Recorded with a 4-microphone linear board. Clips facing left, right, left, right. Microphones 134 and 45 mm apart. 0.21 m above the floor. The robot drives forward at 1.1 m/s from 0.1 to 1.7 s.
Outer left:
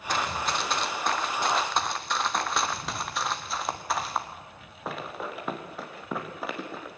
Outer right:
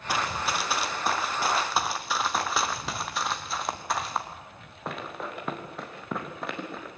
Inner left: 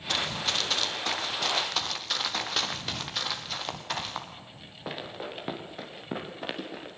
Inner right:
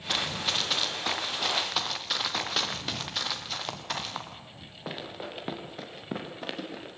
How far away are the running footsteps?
About 3 m.